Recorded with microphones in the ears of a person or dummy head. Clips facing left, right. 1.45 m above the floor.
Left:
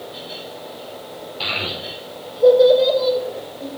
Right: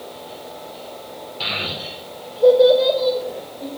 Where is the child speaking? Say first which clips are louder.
Left 1 dB; 5° left (ahead or behind), 4.5 m; by 3.7 s 10° left (ahead or behind), 6.5 m.